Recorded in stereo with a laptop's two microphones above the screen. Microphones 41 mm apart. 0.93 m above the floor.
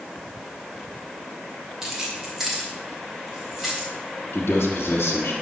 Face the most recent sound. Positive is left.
turn(degrees=70)  # may be behind; listen again after turning